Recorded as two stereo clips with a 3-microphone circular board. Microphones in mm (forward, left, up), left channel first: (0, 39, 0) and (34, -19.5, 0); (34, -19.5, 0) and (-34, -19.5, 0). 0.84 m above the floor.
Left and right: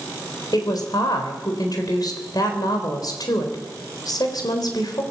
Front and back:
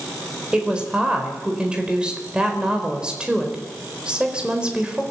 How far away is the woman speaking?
About 4 m.